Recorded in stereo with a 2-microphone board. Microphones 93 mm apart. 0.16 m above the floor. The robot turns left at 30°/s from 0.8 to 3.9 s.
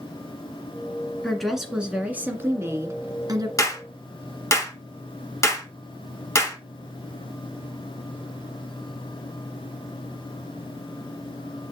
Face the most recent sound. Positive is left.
turn(degrees=30)  # may be behind; listen again after turning